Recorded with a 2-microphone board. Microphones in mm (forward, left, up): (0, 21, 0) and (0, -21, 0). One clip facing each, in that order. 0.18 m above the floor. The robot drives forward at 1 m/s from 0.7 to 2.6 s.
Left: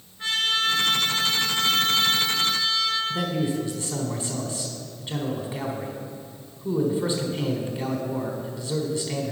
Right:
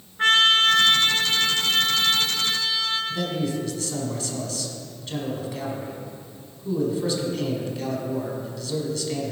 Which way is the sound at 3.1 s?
20° left (ahead or behind).